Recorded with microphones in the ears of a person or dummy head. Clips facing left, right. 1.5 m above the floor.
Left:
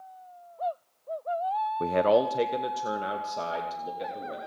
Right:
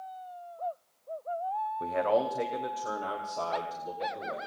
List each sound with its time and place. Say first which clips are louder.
1.8 s a man speaking: left 5 dB; 70° left (ahead or behind), 0.7 m; by 4.4 s 20° left (ahead or behind), 3 m